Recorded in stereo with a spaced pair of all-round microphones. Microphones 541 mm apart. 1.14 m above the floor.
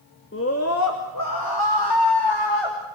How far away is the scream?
About 2.5 m.